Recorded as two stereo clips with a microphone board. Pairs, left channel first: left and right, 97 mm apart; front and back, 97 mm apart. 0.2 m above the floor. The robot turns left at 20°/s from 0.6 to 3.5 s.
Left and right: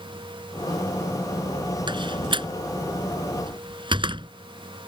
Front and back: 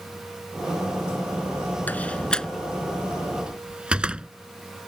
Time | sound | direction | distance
1.9 | a door slam | 70° right | ?